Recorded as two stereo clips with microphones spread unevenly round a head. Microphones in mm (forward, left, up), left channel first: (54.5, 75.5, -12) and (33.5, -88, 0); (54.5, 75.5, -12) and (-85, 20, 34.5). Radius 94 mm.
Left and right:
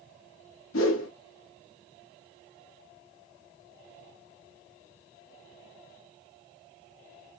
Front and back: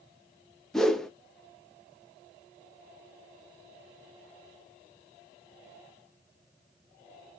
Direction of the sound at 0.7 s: 110° left.